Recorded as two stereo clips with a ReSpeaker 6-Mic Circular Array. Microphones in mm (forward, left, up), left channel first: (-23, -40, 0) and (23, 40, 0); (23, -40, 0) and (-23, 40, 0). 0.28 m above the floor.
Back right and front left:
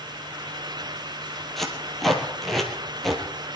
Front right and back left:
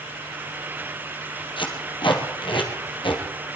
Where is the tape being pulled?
30° right, 2.5 m.